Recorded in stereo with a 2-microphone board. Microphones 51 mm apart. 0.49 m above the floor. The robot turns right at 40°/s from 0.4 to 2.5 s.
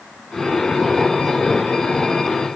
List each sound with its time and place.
Only background noise.